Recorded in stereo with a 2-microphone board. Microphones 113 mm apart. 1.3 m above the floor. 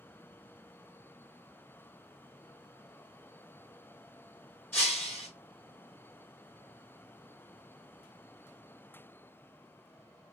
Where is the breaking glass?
20° left (ahead or behind), 3 m.